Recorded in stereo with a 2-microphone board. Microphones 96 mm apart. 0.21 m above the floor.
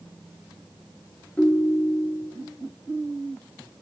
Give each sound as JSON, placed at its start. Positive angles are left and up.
{"t": 1.4, "sound": "a ringtone", "side_deg": 15, "distance_m": 1.6}